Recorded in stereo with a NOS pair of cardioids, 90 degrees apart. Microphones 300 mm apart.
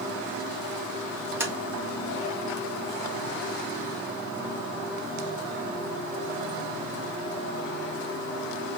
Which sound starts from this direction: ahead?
Tapping, at 1.4 s.